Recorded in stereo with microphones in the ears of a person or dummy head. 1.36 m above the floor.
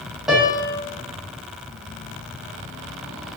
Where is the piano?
5° right (ahead or behind), 0.6 m.